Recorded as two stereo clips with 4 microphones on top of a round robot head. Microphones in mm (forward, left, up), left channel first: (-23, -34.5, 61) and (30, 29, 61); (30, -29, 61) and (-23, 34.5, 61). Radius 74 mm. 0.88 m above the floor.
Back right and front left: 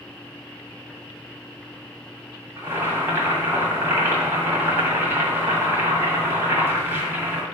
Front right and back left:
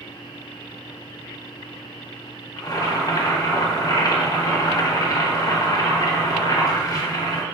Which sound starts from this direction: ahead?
Boiling, at 2.6 s.